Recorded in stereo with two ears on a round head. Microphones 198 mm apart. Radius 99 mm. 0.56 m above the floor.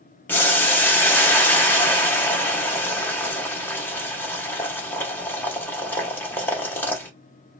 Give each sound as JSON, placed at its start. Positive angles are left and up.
{"t": 0.3, "sound": "boiling", "side_deg": 10, "distance_m": 0.7}